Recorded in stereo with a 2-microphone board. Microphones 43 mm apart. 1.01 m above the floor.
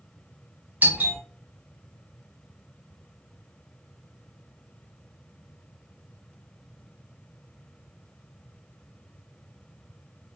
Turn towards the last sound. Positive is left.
turn(degrees=-45)  # may be behind; listen again after turning